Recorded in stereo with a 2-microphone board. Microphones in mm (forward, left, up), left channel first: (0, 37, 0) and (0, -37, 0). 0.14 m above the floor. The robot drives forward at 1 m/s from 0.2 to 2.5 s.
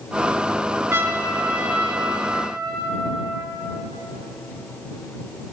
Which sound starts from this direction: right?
A trumpet, at 0.9 s.